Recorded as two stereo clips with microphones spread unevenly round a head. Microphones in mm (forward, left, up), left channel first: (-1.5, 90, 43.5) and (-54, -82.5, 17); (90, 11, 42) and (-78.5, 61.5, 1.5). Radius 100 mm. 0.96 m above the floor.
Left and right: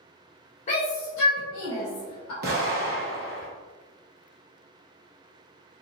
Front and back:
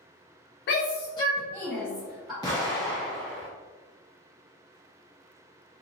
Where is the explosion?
70° right, 1.1 m.